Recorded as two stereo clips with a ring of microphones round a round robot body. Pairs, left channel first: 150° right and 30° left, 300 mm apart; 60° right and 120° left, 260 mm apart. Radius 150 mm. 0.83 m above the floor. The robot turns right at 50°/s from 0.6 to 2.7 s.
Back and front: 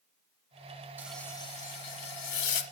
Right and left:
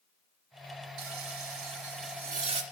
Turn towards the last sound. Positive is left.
turn(degrees=-160)